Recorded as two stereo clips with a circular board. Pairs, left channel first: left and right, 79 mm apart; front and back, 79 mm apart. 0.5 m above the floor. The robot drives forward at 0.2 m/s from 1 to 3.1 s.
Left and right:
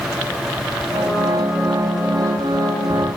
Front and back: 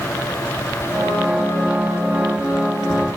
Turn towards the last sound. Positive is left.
No sound to turn to.